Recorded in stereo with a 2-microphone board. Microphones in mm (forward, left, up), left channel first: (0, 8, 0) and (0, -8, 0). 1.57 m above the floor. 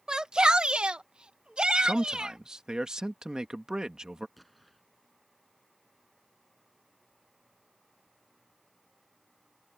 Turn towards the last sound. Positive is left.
turn(degrees=5)  # may be behind; listen again after turning